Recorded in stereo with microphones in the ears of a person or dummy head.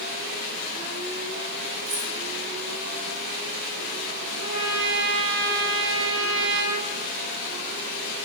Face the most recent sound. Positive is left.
turn(degrees=-65)  # may be behind; listen again after turning